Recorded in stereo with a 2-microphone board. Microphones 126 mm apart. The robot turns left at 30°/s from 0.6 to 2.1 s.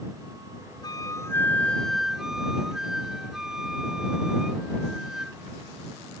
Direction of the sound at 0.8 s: 35° left.